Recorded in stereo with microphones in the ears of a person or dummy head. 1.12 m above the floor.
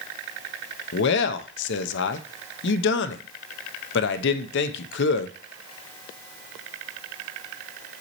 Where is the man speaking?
70° left (ahead or behind), 0.8 m.